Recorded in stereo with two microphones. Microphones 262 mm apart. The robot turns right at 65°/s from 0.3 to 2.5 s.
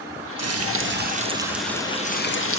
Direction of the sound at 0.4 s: 80° right.